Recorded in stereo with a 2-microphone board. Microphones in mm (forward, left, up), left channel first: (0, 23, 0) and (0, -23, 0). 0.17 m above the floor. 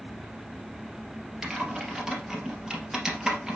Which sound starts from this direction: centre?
Typing on a keyboard, at 1.4 s.